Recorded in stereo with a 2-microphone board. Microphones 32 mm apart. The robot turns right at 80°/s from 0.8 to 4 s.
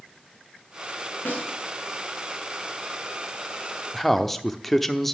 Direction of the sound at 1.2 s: 80° left.